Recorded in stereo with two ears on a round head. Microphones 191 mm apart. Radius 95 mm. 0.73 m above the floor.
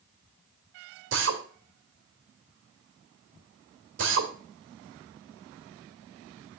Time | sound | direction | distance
1.1 | a drill | 60° right (ahead or behind) | 2 m